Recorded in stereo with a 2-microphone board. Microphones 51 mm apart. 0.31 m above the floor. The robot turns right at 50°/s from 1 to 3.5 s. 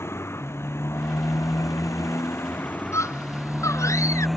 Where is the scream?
65° left (ahead or behind); by 4.3 s 80° left.